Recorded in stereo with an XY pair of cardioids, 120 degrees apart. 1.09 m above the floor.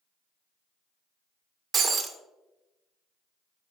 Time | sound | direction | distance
1.7 | breaking glass | 35° right | 1.5 m